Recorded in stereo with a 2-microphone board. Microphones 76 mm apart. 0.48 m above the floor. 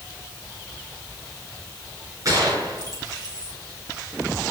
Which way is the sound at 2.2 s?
50° right (ahead or behind).